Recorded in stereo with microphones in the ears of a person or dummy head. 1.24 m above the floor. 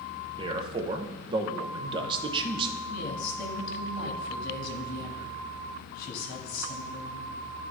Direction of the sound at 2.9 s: 55° left (ahead or behind).